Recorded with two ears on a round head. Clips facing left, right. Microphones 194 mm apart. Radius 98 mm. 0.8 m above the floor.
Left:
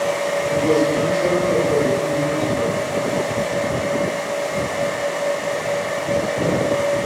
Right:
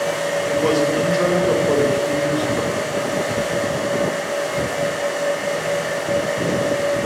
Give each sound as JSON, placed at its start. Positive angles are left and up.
{"t": 0.5, "sound": "a man speaking", "side_deg": -70, "distance_m": 4.0}